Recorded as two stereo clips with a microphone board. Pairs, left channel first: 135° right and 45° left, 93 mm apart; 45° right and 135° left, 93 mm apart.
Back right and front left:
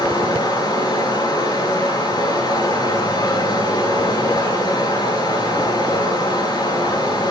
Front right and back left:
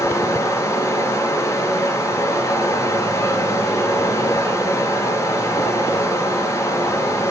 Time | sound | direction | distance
0.0 | running water | 95° right | 4 m